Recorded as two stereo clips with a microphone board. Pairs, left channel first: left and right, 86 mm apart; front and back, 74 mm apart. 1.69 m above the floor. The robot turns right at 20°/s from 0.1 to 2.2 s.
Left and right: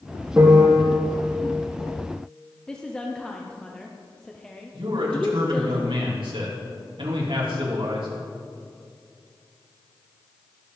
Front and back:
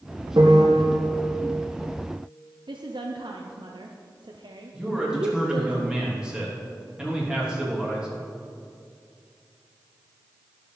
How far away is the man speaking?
About 3.5 m.